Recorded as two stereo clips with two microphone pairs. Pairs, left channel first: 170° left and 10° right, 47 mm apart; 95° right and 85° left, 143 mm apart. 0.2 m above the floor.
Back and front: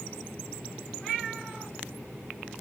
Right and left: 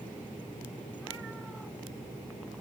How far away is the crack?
I don't hear a crack.